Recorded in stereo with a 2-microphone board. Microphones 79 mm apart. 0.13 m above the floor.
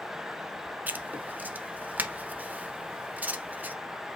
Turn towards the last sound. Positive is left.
turn(degrees=-20)  # may be behind; listen again after turning